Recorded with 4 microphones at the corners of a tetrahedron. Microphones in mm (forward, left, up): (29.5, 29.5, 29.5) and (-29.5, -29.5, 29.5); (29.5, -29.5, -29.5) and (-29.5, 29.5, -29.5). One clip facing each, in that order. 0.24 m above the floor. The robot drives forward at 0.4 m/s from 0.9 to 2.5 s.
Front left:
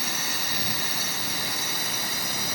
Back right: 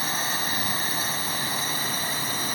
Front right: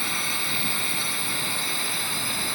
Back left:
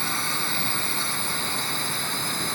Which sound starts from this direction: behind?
A drone, at 0.0 s.